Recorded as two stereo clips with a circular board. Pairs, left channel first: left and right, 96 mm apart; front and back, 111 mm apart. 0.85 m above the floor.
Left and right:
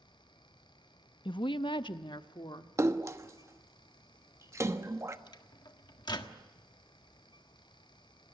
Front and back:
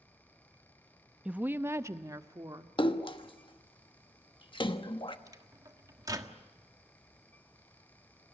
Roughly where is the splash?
Ahead right.